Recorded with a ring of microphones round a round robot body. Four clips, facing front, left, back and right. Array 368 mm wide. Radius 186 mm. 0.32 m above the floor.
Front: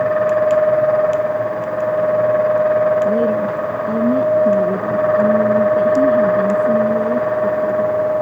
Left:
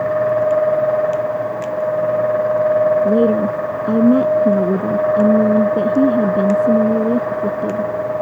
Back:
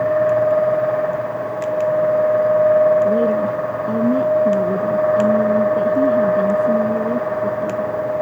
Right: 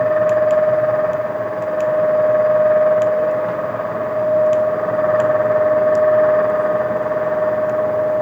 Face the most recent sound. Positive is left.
turn(degrees=90)